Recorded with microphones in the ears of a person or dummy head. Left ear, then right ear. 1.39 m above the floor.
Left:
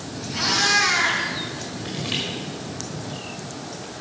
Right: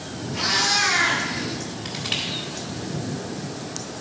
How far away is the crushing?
About 1.8 m.